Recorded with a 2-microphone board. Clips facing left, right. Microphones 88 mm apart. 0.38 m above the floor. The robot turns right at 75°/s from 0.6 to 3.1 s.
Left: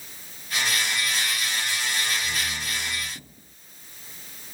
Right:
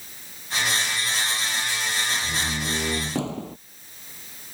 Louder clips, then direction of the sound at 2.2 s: Right 3 dB; 160° right.